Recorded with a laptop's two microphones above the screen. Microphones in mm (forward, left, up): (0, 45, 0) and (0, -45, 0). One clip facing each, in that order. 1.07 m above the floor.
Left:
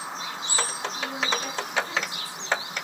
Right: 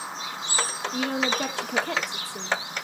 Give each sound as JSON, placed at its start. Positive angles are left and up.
{"t": 0.9, "sound": "a woman speaking", "side_deg": -65, "distance_m": 2.5}